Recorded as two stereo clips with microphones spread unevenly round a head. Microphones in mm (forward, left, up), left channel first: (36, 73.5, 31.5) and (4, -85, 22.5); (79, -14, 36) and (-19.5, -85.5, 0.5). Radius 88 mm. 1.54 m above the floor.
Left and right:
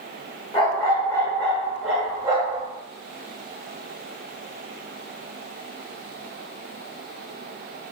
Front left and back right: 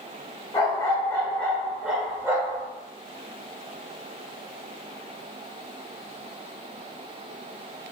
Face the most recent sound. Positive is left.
turn(degrees=-90)